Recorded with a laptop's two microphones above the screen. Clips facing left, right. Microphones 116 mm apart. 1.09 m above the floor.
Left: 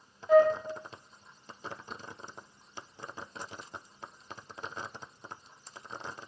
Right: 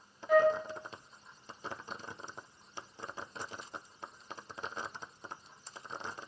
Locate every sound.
0.3 s a flute: 25° left (ahead or behind), 2 m